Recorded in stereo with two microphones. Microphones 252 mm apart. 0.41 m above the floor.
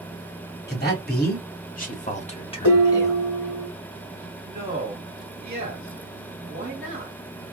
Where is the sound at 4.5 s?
40° right (ahead or behind), 1.4 m.